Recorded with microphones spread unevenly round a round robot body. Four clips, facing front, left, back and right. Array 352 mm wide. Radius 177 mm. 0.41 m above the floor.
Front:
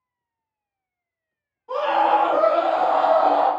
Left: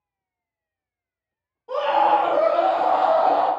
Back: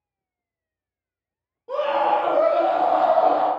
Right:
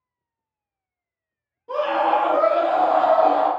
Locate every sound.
1.7 s a scream: 175° right, 1.3 m; by 3.5 s 115° right, 1.1 m